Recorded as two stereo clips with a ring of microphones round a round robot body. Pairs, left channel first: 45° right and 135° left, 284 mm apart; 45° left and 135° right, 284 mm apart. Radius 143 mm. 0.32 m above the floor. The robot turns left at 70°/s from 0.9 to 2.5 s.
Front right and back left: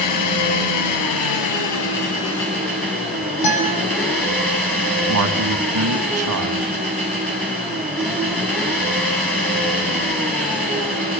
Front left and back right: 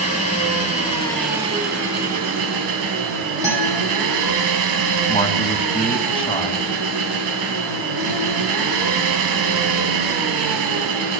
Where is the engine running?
20° right, 7 m; by 11.2 s 130° right, 7 m.